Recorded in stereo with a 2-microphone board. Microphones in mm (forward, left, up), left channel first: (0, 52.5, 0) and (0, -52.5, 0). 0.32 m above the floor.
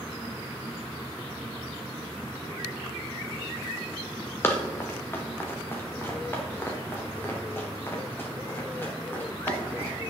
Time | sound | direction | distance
4.4 | running footsteps | 20° left (ahead or behind) | 2.5 m